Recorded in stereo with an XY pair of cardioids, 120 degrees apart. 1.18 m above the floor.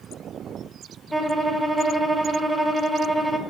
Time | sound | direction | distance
1.1 | a violin | 5° right | 0.6 m